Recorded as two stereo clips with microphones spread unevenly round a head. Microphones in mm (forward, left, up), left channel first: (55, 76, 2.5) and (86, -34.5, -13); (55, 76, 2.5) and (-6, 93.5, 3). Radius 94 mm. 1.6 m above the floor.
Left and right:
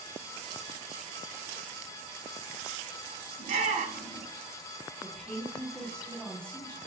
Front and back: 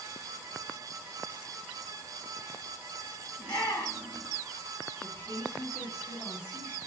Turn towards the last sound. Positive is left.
turn(degrees=25)